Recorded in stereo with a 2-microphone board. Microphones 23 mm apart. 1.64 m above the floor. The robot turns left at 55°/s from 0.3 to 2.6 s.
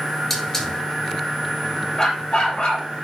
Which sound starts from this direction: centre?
A hiss, at 0.3 s.